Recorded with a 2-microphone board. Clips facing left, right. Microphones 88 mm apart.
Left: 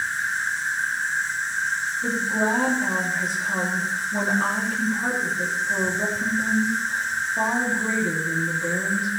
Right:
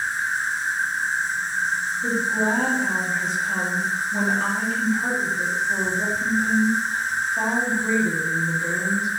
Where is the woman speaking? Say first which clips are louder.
Right 1 dB; 10° left (ahead or behind), 2.5 m.